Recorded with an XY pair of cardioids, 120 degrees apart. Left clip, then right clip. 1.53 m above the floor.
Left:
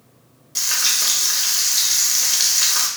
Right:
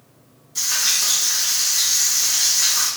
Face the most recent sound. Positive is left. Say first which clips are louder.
# left 1 dB
turn(degrees=65)